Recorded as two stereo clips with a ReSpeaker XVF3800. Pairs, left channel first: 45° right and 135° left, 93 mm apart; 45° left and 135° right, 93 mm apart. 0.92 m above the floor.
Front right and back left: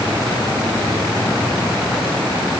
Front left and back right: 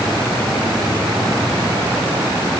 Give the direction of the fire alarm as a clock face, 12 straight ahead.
No fire alarm in this recording.